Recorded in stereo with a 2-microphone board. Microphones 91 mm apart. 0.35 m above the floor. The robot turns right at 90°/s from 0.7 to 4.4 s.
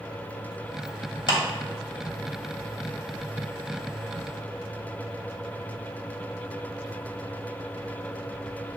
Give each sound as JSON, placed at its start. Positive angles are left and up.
{"t": 1.3, "sound": "a clap", "side_deg": 55, "distance_m": 1.0}